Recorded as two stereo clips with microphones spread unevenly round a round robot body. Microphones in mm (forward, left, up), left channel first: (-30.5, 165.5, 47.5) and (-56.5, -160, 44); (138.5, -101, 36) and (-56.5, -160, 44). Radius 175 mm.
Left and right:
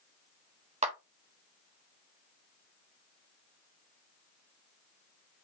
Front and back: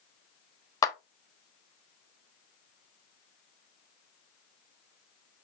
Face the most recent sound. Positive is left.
turn(degrees=-40)